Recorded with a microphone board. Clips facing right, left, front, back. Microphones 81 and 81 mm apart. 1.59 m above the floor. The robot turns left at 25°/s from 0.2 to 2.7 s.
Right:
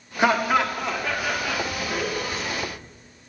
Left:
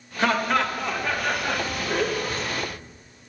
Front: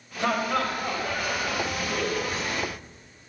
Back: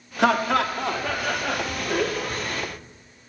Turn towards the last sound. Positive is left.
turn(degrees=130)